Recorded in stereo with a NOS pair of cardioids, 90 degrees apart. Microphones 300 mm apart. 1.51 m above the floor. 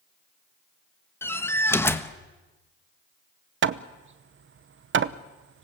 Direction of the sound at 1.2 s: 10° left.